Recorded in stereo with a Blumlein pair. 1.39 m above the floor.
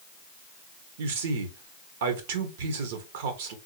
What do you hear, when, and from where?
1.0 s a man speaking: 55° right, 1.2 m